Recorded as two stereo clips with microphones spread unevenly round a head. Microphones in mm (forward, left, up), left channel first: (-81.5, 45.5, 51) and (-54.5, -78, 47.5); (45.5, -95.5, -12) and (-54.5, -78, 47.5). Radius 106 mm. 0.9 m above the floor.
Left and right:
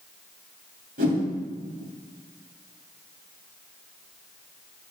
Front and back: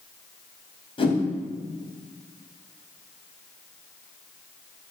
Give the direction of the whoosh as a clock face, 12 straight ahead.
2 o'clock.